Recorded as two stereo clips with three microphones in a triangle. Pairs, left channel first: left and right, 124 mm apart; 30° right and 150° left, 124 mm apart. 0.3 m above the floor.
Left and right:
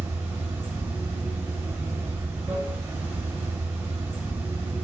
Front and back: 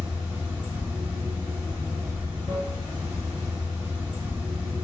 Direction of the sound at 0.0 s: 140° right.